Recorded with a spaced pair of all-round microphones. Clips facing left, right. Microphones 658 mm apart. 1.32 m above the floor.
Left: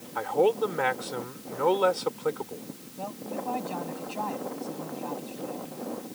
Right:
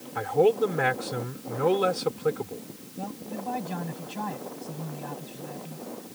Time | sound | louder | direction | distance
0.1 | a man speaking | right 2 dB | 50° right (ahead or behind) | ?
3.0 | a man speaking | even | 45° right (ahead or behind) | ?